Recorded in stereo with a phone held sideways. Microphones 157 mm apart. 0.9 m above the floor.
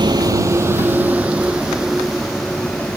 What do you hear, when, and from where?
0.0 s a vehicle: 25° right (ahead or behind); by 3.0 s 5° left (ahead or behind)